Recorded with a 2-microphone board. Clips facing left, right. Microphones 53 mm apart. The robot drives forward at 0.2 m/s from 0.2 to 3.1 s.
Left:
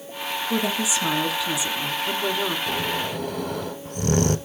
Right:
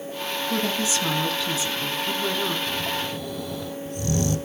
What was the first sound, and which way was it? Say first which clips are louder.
A woman speaking: left 1 dB; 10° left (ahead or behind).